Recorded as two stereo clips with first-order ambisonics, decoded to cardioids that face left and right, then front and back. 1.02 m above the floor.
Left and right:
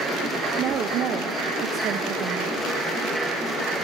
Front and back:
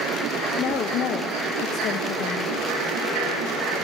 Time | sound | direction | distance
0.6 | a woman speaking | 45° right | 0.7 m